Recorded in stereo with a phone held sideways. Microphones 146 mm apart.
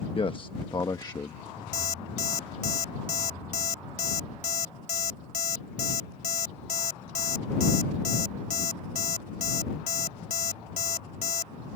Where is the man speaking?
40° left (ahead or behind); by 1.4 s 25° left (ahead or behind).